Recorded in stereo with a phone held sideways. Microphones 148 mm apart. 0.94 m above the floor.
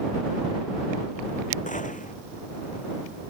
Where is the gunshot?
60° left (ahead or behind).